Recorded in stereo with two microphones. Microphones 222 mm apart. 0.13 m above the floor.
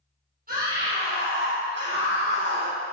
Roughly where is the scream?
Right.